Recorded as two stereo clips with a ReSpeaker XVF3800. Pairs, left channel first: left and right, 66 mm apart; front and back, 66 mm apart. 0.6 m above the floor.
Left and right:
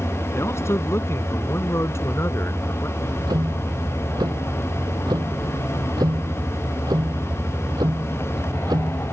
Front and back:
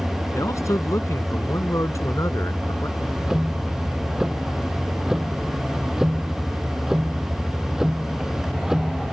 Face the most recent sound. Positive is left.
turn(degrees=-95)